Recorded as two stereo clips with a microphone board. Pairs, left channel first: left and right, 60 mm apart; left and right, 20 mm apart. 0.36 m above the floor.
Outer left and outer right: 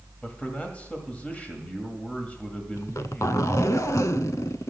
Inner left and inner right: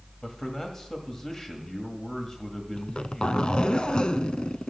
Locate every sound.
0.2 s a man speaking: 25° left (ahead or behind), 1.7 m
2.8 s a zipper: 70° left (ahead or behind), 0.5 m